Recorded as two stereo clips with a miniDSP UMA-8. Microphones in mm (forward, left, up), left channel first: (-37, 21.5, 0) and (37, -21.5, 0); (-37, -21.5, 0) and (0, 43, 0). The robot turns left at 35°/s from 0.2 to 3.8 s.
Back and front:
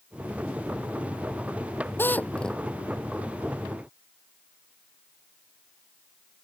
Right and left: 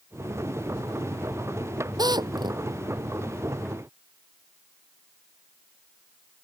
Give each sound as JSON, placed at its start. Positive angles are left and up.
{"t": 2.0, "sound": "a drill", "azimuth_deg": 85}